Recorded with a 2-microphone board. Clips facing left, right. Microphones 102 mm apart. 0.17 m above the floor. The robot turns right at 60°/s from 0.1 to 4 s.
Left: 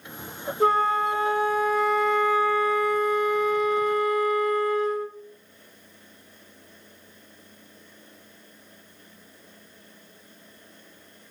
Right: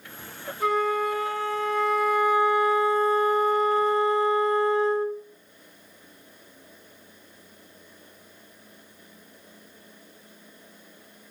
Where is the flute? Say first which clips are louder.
Left 3 dB; 100° left, 0.7 m; by 5.2 s 55° right, 0.7 m.